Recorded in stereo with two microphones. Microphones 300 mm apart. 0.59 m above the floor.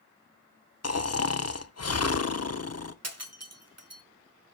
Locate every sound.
0.8 s snoring: 55° left (ahead or behind), 0.6 m
3.0 s breaking glass: 55° right (ahead or behind), 1.4 m